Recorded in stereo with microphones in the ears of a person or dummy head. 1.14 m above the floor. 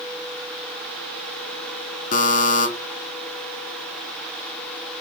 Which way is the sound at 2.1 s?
35° left (ahead or behind).